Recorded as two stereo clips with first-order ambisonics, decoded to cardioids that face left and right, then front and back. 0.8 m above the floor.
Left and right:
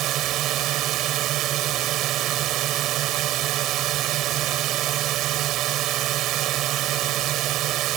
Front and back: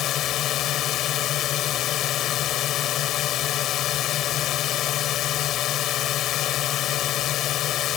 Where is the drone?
45° right.